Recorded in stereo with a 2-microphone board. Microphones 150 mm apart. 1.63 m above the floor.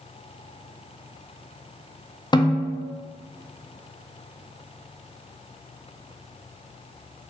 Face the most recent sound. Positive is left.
turn(degrees=30)  # may be behind; listen again after turning